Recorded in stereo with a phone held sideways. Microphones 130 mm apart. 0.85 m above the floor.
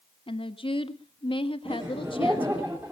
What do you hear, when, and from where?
0.3 s a woman speaking: 40° left (ahead or behind), 1.4 m
1.6 s laughter: 15° right (ahead or behind), 3 m